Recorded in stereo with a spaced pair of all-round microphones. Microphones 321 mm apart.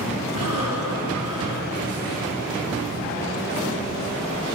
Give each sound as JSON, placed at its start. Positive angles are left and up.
{"t": 0.3, "sound": "breathing", "side_deg": -80, "distance_m": 4.5}